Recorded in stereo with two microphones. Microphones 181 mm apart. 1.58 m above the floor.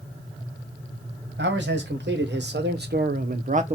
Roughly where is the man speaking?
Right.